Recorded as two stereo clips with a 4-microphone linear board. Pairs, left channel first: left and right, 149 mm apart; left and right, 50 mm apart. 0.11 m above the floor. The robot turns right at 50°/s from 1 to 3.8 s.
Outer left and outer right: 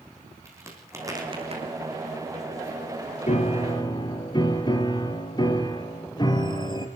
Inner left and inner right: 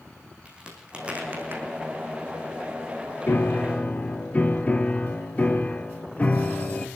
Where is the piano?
50° left (ahead or behind), 2 m; by 6.9 s 30° left (ahead or behind), 2 m.